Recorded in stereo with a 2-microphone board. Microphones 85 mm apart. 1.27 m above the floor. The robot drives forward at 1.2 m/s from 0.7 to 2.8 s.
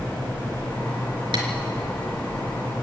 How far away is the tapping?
About 3.5 m.